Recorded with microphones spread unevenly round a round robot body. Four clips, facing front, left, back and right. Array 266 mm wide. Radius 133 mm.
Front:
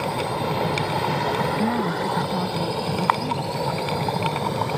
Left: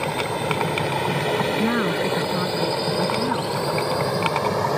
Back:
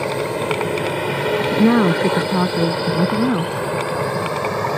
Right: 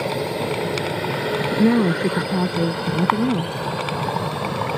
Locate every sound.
0.0 s a drone: 160° right; by 4.8 s 145° left
1.5 s a woman speaking: 155° right